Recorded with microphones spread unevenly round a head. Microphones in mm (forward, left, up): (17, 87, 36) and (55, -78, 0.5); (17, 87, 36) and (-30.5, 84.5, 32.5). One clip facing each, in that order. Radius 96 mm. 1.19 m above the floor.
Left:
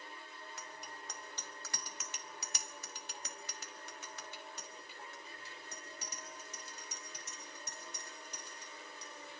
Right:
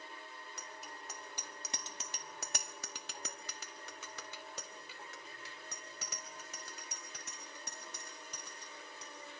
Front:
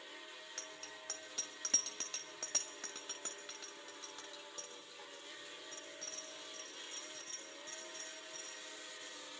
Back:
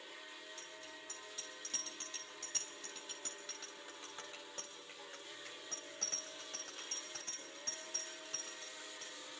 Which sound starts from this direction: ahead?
A bicycle bell, at 0.6 s.